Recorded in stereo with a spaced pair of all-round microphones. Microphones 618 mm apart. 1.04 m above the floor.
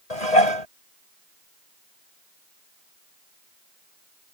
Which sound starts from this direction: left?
Dishes clattering, at 0.1 s.